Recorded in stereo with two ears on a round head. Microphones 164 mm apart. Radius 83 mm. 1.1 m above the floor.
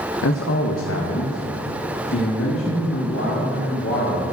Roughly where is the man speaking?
Left.